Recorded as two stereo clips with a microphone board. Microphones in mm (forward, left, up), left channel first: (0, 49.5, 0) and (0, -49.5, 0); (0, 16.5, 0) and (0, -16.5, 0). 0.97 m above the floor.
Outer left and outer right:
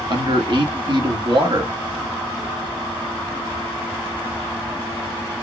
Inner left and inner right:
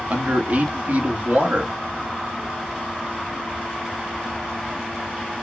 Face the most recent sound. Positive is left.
turn(degrees=-50)  # may be behind; listen again after turning